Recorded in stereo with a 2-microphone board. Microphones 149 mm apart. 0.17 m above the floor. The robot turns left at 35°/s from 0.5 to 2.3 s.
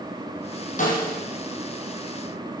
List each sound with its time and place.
0.8 s a snare drum: 60° left (ahead or behind), 5 m; by 1.1 s 70° left (ahead or behind), 5 m